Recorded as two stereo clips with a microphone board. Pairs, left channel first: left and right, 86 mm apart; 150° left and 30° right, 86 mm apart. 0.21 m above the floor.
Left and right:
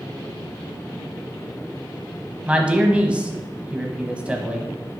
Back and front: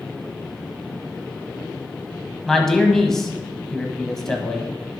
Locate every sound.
2.5 s a man speaking: 135° right, 1.0 m